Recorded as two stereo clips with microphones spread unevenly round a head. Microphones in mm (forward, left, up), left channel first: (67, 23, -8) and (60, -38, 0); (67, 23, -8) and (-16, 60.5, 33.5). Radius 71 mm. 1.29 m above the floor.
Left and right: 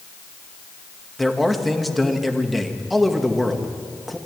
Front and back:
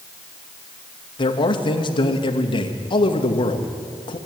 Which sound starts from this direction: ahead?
A man speaking, at 1.2 s.